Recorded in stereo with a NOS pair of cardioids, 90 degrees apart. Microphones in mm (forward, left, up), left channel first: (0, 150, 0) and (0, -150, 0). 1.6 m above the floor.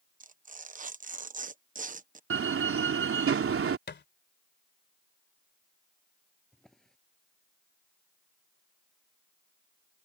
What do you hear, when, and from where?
0.2 s tearing paper: 25° right
2.3 s a door slam: 45° right
3.9 s a thud: 35° left
6.5 s a drawer: straight ahead